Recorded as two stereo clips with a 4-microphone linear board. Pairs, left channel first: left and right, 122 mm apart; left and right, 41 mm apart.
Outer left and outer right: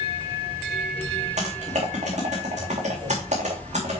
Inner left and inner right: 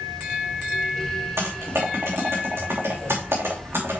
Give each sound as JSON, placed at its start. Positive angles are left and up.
{"t": 1.4, "sound": "typing on a keyboard", "side_deg": -85, "distance_m": 4.0}